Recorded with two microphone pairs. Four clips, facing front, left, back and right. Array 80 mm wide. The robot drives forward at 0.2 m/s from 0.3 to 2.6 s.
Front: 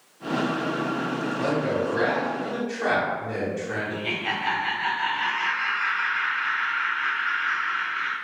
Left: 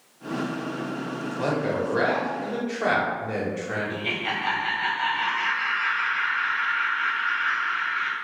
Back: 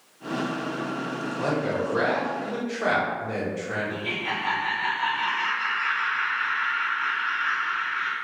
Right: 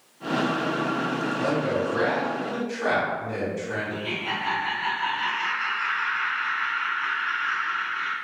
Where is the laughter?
80° left, 1.2 m.